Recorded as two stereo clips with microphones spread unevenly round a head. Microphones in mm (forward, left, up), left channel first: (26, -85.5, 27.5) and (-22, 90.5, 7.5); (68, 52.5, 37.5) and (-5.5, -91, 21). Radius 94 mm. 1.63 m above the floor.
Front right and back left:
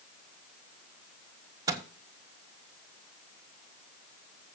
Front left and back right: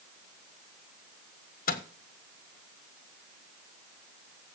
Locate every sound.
1.7 s a microwave: 30° left, 1.6 m